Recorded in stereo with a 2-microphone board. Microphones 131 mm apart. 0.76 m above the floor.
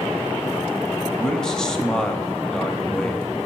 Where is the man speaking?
5° left (ahead or behind), 0.8 m.